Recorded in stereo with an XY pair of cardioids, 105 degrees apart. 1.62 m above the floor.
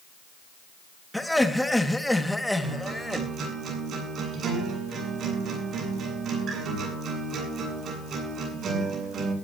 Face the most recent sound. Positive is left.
turn(degrees=-60)